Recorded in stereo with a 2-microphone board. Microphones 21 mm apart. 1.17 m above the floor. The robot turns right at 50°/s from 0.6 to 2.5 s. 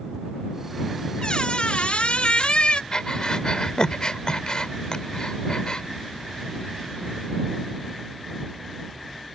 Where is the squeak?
50° left; by 2.8 s 115° left.